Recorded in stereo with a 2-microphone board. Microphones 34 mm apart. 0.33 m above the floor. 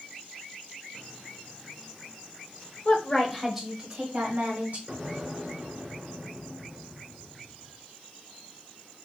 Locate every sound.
2.9 s a woman speaking: 30° left (ahead or behind), 1.2 m; by 4.8 s 40° right (ahead or behind), 2.5 m
4.9 s an explosion: 30° right (ahead or behind), 2.5 m